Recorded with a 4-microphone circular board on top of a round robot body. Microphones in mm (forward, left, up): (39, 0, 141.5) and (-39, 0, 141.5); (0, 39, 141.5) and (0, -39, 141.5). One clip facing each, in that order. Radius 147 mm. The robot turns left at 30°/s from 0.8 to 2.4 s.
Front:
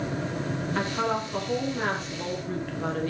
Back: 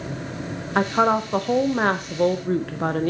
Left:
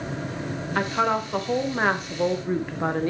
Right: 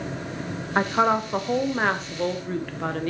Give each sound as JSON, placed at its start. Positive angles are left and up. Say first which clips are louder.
{"t": 0.8, "sound": "a woman speaking", "louder": "back 10 dB, right 3 dB", "azimuth_deg": -150, "distance_m": 1.1}